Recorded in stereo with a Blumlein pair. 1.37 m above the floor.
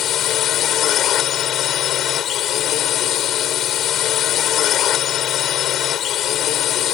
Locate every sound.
0.0 s a drone: 30° left